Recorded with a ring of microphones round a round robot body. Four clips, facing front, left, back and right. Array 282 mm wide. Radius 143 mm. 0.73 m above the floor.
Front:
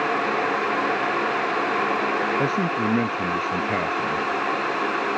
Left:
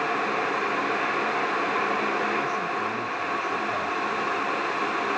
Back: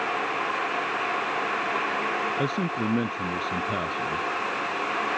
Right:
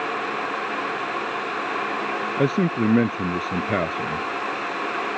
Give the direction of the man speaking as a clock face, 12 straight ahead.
3 o'clock.